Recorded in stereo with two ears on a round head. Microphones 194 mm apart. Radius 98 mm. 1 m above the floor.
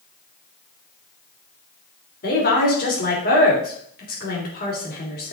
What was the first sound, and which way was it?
A woman speaking, 40° left (ahead or behind).